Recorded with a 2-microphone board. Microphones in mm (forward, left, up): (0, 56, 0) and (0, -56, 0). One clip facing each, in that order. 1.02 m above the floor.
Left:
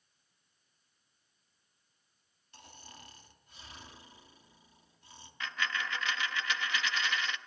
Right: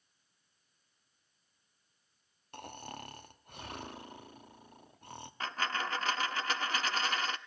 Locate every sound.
2.5 s snoring: 65° right (ahead or behind), 0.8 m
5.4 s a dropped coin: 40° right (ahead or behind), 0.5 m